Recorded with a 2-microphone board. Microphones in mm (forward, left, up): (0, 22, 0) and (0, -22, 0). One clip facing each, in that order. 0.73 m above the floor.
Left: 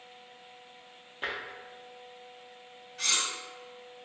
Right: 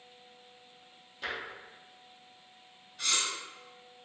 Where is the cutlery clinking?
80° left, 1.7 m.